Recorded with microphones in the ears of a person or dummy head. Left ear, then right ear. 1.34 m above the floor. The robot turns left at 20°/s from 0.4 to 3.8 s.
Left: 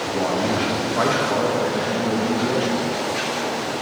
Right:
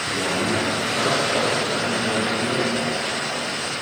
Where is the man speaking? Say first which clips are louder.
Left 2 dB; 165° left, 2.5 m; by 2.7 s 120° left, 2.5 m.